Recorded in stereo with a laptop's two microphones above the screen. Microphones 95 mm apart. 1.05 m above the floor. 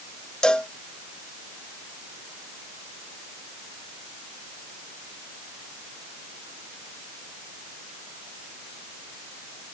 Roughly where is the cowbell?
Centre.